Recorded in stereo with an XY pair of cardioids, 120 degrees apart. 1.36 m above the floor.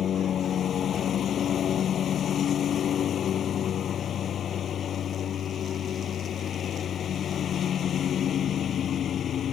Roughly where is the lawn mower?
Ahead left.